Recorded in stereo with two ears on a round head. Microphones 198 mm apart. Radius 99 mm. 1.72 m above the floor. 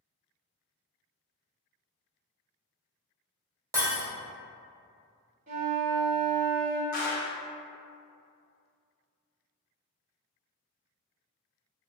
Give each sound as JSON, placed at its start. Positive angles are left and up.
{"t": 3.7, "sound": "breaking glass", "side_deg": -15, "distance_m": 0.9}
{"t": 5.5, "sound": "a flute", "side_deg": -40, "distance_m": 1.0}
{"t": 6.9, "sound": "a clap", "side_deg": 40, "distance_m": 0.6}